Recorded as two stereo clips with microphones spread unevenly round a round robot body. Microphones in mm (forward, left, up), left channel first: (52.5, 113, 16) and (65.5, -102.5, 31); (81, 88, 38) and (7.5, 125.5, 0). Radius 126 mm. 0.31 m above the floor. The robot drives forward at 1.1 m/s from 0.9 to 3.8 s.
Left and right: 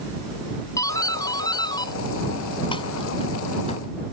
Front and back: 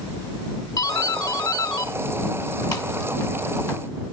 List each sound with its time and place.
0.8 s a doorbell: 20° left; by 3.8 s 35° left